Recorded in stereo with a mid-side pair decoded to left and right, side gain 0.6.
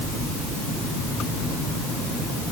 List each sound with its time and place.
Only background noise.